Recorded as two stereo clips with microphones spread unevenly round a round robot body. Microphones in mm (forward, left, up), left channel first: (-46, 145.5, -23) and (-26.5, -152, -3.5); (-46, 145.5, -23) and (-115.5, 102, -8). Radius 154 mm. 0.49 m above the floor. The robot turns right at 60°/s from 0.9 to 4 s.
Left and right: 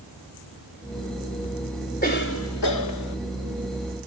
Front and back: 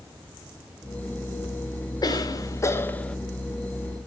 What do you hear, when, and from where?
2.0 s a cough: 35° left, 1.4 m; by 3.2 s 105° left, 1.4 m